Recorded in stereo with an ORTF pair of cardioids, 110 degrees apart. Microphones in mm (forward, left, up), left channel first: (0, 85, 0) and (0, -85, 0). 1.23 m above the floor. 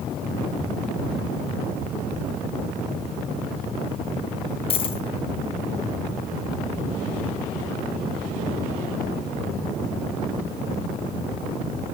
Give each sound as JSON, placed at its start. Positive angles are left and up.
{"t": 4.7, "sound": "a dropped coin", "azimuth_deg": 35, "distance_m": 3.0}